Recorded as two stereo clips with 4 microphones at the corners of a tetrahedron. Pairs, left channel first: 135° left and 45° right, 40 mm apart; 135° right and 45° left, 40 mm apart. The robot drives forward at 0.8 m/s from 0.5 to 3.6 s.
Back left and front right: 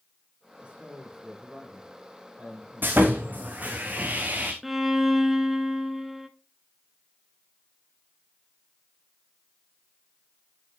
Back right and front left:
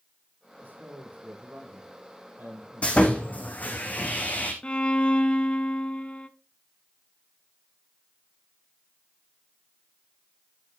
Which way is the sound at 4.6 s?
125° right.